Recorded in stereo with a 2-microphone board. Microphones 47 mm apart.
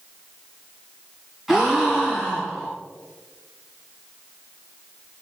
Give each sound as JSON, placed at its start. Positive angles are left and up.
{"t": 1.5, "sound": "a gasp", "side_deg": -5, "distance_m": 2.5}